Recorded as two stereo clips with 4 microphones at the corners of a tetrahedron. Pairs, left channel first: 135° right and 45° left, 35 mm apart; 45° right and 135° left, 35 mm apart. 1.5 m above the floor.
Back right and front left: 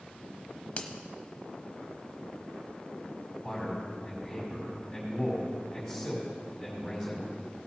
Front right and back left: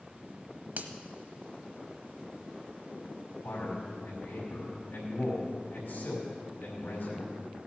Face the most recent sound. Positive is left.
turn(degrees=-40)